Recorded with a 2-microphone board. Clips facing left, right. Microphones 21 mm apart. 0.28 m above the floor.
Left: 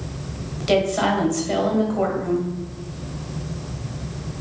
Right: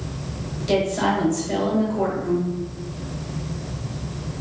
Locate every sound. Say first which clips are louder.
0.6 s a woman speaking: left 2 dB; 30° left (ahead or behind), 1.2 m